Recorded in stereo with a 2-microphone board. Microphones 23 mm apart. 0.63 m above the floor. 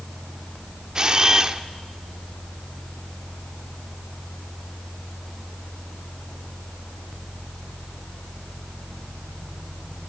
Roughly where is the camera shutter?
Right.